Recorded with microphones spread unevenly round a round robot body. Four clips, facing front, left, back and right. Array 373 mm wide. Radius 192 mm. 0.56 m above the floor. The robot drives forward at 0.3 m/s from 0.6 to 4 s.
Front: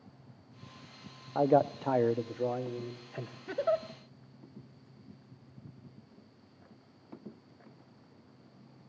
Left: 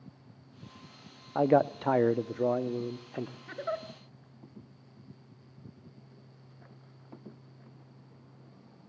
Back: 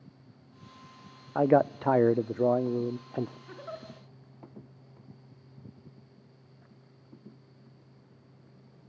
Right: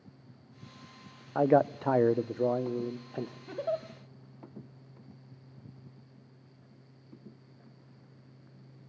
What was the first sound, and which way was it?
A man speaking, straight behind.